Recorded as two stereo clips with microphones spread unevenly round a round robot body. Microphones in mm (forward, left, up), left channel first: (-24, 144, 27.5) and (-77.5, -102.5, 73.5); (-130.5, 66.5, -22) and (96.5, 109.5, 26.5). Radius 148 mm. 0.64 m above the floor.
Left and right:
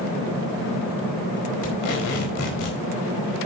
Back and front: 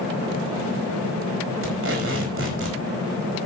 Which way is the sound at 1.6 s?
45° left.